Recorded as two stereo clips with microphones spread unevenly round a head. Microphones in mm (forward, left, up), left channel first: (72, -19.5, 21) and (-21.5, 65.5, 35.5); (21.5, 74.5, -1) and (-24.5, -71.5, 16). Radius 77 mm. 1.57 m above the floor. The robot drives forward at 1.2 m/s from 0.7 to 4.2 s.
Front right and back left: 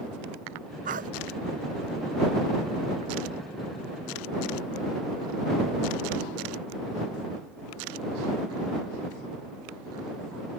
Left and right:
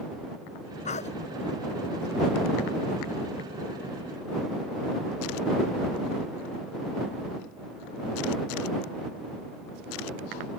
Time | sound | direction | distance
0.8 | a dog barking | 120° left | ?